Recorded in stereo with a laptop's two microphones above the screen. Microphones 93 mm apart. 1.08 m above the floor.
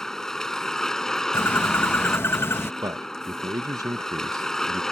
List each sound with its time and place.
0.0 s a vehicle: 5° left (ahead or behind)
1.3 s a bird: 25° left (ahead or behind)
2.8 s a man speaking: 40° right (ahead or behind)